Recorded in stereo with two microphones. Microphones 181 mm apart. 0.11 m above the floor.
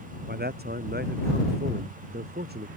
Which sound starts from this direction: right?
A man speaking, at 0.3 s.